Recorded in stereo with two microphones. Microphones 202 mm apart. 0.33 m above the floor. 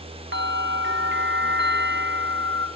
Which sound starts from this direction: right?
A bell, at 0.3 s.